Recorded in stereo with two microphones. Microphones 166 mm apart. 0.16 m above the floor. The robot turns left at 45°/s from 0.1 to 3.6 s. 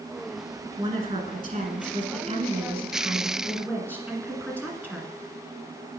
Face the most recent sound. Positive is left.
turn(degrees=-165)